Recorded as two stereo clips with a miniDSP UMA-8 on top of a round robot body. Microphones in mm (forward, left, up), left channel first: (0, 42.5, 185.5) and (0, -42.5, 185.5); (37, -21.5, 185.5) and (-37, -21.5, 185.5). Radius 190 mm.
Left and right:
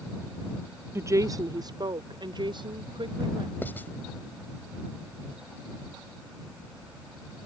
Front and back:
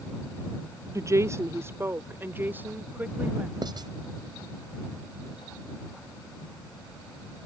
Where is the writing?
160° left.